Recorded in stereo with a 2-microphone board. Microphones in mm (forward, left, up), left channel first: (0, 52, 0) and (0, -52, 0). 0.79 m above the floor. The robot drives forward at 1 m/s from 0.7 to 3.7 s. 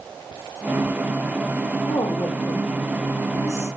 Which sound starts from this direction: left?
A woman speaking, at 1.9 s.